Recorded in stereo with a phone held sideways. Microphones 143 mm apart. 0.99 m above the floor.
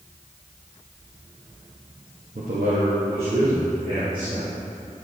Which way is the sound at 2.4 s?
70° right (ahead or behind).